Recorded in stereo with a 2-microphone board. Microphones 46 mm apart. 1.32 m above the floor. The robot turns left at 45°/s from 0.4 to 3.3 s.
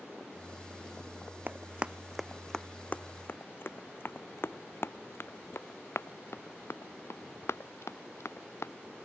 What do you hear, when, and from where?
1.5 s running footsteps: 40° right (ahead or behind); by 8.7 s 70° left (ahead or behind)